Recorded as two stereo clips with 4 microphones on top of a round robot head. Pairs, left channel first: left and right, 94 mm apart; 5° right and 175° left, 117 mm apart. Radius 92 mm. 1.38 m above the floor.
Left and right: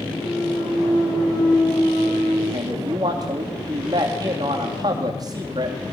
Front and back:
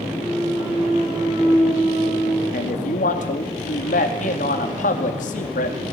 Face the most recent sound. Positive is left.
turn(degrees=-30)